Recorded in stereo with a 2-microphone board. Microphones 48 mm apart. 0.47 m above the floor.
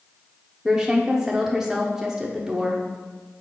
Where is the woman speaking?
10° right (ahead or behind), 0.7 m.